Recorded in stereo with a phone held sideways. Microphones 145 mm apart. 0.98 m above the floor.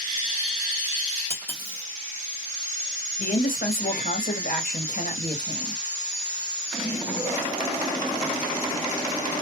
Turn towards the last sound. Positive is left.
turn(degrees=70)  # may be behind; listen again after turning